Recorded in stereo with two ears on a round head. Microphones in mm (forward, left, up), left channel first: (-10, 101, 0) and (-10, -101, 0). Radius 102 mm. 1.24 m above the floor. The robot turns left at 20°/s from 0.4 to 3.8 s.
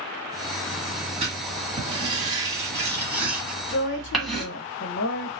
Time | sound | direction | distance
1.2 | writing | 30° right (ahead or behind) | 1.3 m
3.7 | a woman speaking | 60° left (ahead or behind) | 0.7 m